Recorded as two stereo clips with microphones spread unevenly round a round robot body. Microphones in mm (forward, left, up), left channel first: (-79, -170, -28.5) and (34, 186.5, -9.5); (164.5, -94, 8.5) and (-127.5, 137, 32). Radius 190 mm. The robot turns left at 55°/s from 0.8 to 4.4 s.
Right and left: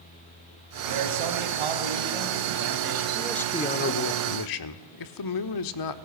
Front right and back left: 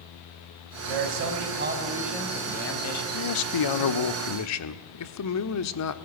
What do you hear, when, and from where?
0.9 s a man speaking: 120° left, 4 m; by 3.0 s straight ahead, 4 m
3.1 s a man speaking: 10° right, 1.4 m; by 6.0 s 80° right, 1.4 m